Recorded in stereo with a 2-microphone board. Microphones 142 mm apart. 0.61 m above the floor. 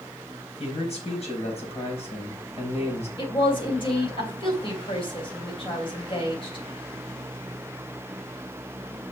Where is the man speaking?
45° left (ahead or behind), 4 m.